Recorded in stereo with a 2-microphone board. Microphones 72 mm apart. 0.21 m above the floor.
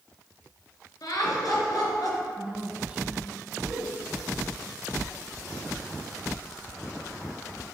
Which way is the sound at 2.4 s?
15° right (ahead or behind).